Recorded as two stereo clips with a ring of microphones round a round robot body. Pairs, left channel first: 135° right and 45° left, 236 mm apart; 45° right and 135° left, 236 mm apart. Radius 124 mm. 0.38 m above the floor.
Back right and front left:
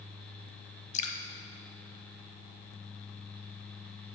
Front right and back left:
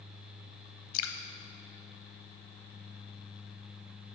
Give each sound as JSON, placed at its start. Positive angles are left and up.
{"t": 0.9, "sound": "dripping", "azimuth_deg": -70, "distance_m": 0.6}